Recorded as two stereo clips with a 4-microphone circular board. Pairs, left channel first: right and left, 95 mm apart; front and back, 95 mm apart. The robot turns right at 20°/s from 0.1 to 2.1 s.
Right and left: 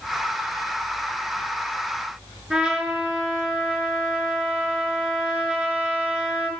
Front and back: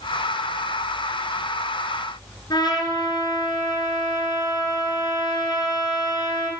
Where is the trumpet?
15° left, 1.5 m.